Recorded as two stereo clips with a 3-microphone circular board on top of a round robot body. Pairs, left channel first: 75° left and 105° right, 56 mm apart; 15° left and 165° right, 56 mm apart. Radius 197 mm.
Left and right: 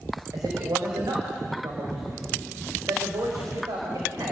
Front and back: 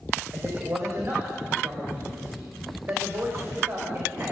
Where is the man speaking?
115° right, 5 m.